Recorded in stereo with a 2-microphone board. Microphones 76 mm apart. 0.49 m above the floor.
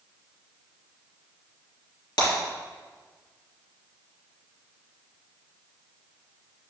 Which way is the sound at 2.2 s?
65° left (ahead or behind).